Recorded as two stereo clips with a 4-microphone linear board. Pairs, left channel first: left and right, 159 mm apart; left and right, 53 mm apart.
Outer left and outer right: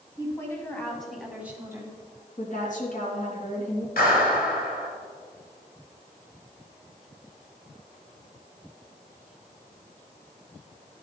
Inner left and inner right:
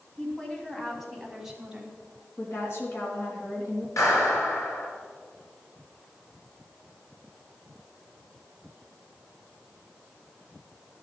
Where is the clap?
80° left, 3.5 m.